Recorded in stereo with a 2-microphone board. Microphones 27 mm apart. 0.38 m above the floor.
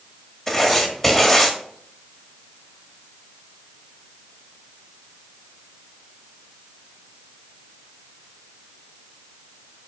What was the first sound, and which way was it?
Writing, 20° left (ahead or behind).